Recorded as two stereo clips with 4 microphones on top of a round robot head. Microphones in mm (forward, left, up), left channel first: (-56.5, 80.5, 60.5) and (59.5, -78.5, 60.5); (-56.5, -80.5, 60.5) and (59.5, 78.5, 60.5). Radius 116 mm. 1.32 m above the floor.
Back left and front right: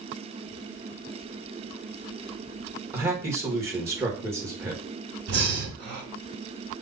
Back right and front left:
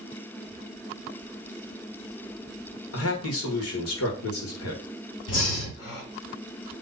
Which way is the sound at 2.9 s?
130° right.